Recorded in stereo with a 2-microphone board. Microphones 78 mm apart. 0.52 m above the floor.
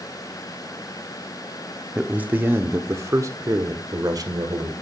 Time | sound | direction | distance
1.9 | a man speaking | 15° right (ahead or behind) | 1.1 m